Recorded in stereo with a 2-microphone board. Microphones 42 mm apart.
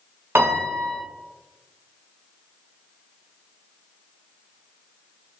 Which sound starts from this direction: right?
A piano, at 0.3 s.